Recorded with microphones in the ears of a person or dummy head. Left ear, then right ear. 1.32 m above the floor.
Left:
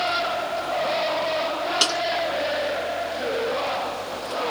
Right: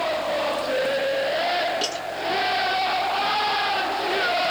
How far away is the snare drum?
About 9 m.